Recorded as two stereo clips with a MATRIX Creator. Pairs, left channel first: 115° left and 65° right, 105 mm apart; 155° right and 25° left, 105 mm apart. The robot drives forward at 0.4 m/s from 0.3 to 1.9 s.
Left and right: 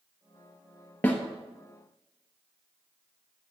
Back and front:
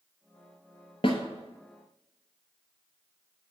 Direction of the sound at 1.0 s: 175° right.